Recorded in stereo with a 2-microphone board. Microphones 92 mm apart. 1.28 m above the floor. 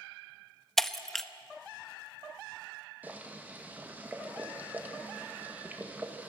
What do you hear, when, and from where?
0.8 s breaking glass: 5° left (ahead or behind), 0.6 m
3.0 s boiling: 20° right (ahead or behind), 1.6 m